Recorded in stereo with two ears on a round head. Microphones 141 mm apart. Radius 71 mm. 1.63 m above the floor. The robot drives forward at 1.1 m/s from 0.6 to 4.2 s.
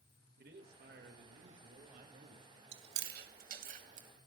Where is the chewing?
80° right, 2.5 m; by 4.1 s 50° right (ahead or behind), 3 m.